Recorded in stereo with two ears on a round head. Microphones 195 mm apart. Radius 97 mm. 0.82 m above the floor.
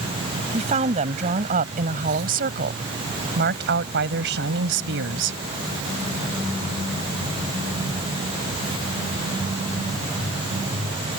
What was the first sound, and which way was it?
A woman speaking, 30° right (ahead or behind).